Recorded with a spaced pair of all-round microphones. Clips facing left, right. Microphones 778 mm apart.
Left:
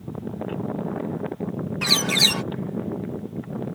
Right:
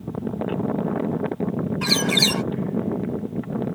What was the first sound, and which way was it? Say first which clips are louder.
A bird: right 4 dB; 20° left (ahead or behind).